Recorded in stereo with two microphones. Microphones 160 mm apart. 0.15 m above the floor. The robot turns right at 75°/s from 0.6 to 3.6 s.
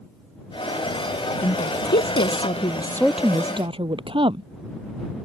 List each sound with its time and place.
1.4 s a woman speaking: 50° left; by 4.5 s 145° right